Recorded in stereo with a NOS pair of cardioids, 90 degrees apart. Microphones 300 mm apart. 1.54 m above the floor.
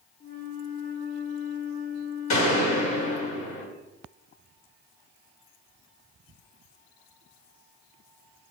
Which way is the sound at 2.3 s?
60° left.